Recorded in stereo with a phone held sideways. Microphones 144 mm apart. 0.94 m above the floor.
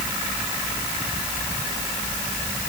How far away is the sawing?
I don't hear sawing.